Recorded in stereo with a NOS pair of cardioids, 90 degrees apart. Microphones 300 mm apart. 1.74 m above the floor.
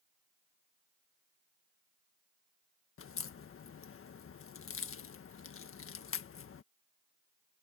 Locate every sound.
3.0 s a crack: 50° left